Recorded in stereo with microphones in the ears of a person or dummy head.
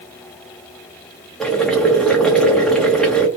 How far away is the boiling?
About 1.2 m.